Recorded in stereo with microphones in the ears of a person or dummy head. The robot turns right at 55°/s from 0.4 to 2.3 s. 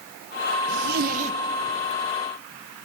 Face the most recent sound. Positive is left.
turn(degrees=20)